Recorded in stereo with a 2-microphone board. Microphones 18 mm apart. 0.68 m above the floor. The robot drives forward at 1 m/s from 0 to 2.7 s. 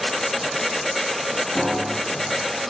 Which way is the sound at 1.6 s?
20° left (ahead or behind).